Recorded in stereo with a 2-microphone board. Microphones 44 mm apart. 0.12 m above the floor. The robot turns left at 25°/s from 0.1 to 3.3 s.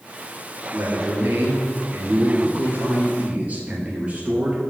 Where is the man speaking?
75° right, 1.9 m; by 4.6 s 140° right, 1.9 m.